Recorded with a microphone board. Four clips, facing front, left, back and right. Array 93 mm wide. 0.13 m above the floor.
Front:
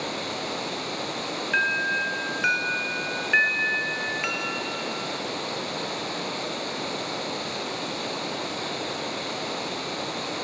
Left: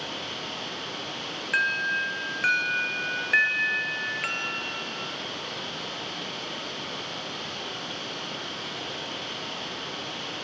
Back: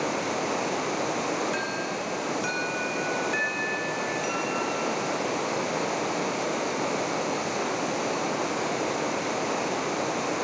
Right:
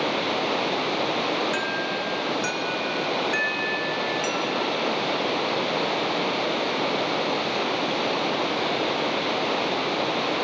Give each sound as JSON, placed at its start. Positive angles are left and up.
{"t": 0.0, "sound": "running water", "azimuth_deg": -110, "distance_m": 1.4}
{"t": 1.5, "sound": "an alarm", "azimuth_deg": 40, "distance_m": 1.7}